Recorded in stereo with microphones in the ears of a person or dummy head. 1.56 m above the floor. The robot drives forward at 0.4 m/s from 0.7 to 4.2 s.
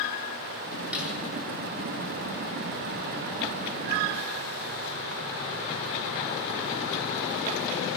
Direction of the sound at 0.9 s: 5° right (ahead or behind).